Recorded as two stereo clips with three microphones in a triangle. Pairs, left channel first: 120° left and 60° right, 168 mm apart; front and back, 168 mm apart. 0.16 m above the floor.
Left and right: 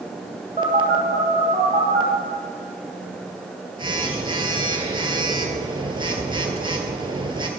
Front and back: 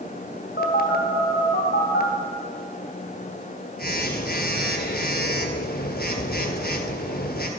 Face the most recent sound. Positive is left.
turn(degrees=0)